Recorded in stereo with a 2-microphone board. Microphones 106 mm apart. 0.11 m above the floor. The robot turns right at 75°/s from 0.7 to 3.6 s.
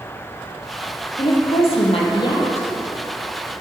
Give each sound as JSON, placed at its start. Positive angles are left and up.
{"t": 1.2, "sound": "a woman speaking", "azimuth_deg": 45, "distance_m": 3.0}